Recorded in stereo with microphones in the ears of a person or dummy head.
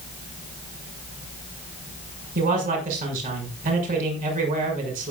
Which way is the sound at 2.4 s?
40° right (ahead or behind).